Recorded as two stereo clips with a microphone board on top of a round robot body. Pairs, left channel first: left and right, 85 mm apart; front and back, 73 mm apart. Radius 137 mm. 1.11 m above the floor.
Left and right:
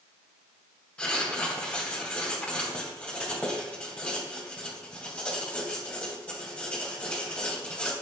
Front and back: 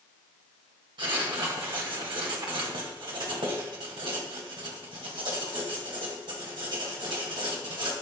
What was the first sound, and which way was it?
Writing, 165° left.